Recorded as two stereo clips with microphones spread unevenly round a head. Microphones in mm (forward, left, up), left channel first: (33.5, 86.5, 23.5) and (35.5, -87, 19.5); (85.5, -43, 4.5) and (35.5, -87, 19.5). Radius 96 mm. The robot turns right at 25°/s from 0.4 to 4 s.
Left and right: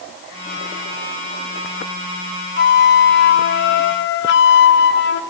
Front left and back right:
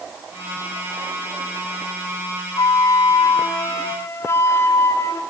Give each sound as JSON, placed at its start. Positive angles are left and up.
{"t": 2.6, "sound": "a flute", "azimuth_deg": 60, "distance_m": 1.5}